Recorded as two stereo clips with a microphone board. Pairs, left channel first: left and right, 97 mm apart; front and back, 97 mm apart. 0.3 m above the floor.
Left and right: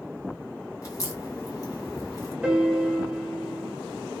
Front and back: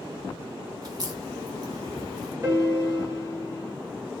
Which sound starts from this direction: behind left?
A crack, at 0.8 s.